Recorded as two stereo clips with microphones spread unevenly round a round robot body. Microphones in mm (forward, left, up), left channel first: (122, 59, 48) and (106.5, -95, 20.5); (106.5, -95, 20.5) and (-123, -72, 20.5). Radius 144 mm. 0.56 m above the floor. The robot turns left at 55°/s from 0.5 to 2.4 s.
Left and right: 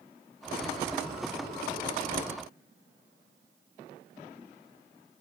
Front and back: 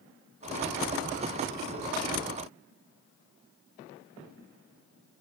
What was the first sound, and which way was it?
Only background noise.